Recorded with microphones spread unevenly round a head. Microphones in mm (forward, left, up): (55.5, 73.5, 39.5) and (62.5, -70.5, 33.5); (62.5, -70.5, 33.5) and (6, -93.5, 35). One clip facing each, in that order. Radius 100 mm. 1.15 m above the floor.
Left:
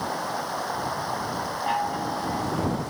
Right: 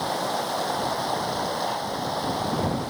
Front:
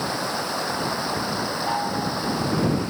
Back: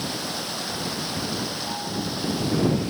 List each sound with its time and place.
0.0 s running water: 30° right
1.7 s a chime: 75° left